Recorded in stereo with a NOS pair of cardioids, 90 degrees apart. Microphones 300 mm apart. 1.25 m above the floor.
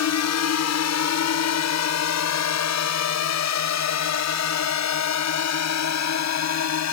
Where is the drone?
65° left; by 6.9 s 60° left.